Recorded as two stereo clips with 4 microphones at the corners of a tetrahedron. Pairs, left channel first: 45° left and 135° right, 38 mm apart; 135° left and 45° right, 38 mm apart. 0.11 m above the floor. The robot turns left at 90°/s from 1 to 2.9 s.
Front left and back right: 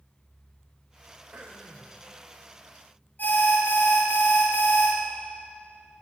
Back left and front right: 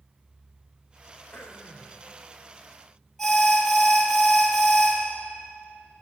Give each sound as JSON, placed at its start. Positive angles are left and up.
{"t": 1.3, "sound": "throat clearing", "azimuth_deg": 180, "distance_m": 1.9}
{"t": 3.2, "sound": "an alarm", "azimuth_deg": 55, "distance_m": 3.0}